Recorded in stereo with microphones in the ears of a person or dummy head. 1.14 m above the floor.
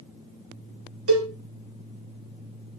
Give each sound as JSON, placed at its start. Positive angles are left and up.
{"t": 1.1, "sound": "a cowbell", "side_deg": -65, "distance_m": 1.1}